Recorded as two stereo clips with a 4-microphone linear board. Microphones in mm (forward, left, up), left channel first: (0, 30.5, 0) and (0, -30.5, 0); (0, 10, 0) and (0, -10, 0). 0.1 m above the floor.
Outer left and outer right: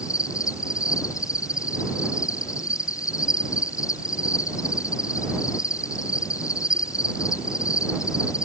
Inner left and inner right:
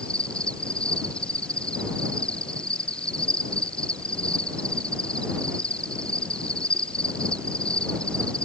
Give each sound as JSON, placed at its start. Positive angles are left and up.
{"t": 0.0, "sound": "an insect", "side_deg": 65}